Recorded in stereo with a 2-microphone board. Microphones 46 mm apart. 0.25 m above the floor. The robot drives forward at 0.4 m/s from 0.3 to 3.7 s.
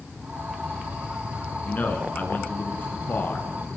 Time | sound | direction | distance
1.6 | a man speaking | 40° left (ahead or behind) | 3 m